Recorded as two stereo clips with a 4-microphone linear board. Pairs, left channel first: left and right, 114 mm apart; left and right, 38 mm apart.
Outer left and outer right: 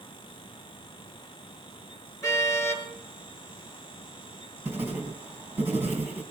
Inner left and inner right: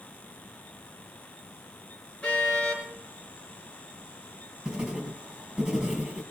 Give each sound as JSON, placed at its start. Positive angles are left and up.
{"t": 2.2, "sound": "a car horn", "side_deg": 25, "distance_m": 5.5}
{"t": 4.7, "sound": "writing", "side_deg": -20, "distance_m": 3.5}